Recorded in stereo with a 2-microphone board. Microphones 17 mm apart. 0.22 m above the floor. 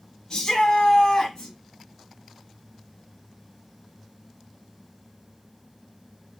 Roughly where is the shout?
Left.